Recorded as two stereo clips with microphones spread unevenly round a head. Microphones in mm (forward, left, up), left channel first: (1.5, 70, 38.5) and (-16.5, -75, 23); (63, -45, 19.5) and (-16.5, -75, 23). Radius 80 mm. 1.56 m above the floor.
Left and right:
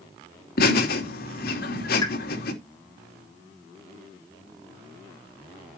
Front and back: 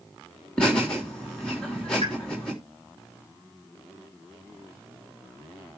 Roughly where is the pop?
Behind left.